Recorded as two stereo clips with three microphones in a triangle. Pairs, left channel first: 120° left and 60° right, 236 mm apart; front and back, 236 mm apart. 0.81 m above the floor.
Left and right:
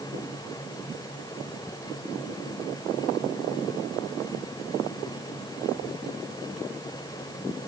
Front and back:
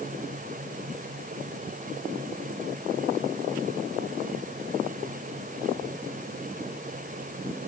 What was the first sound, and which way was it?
Only background noise.